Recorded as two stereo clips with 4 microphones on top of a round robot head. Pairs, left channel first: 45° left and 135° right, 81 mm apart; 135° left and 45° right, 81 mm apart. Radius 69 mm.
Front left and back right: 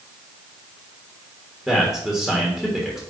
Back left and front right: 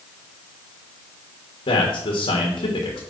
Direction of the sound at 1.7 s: 135° left.